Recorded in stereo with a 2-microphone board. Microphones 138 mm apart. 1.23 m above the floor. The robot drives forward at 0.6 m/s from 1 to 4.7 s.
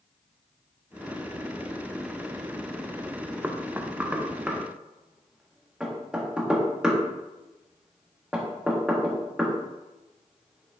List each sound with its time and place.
3.4 s knocking: 15° right (ahead or behind), 0.5 m; by 10.8 s 5° right (ahead or behind), 1.2 m